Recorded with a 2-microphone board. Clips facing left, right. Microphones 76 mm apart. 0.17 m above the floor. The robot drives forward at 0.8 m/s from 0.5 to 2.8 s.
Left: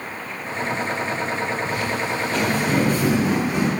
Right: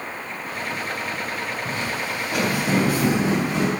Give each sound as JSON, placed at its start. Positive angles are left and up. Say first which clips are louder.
{"t": 1.6, "sound": "footsteps", "louder": "left 3 dB", "side_deg": -30, "distance_m": 2.0}